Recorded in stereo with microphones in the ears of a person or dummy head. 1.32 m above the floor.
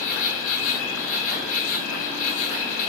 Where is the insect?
40° left (ahead or behind), 3 m.